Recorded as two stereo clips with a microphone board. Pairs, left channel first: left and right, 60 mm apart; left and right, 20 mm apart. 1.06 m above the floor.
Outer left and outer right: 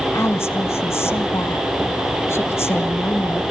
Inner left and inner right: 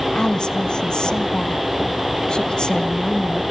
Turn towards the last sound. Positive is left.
turn(degrees=45)  # may be behind; listen again after turning